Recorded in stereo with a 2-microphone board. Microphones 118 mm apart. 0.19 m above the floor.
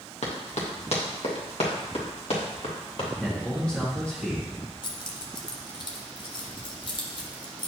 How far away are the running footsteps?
About 2.5 m.